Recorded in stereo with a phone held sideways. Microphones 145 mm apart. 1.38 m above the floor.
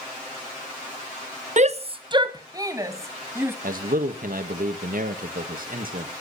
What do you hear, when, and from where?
1.6 s a shout: 55° right (ahead or behind), 0.7 m; by 3.5 s 15° right (ahead or behind), 2 m
3.6 s a man speaking: 70° right (ahead or behind), 1.8 m